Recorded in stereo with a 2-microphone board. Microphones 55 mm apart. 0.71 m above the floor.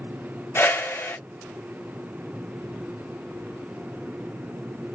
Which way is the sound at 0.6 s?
45° left (ahead or behind).